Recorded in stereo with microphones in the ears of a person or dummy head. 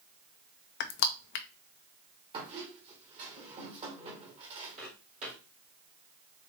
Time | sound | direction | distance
0.8 | crushing | 60° left (ahead or behind) | 0.5 m
2.3 | a squeak | 30° right (ahead or behind) | 1.0 m
4.8 | footsteps | 40° right (ahead or behind) | 2.5 m